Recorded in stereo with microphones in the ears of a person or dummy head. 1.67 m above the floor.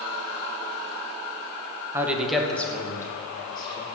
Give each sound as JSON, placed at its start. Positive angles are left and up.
{"t": 1.9, "sound": "a man speaking", "side_deg": -15, "distance_m": 1.8}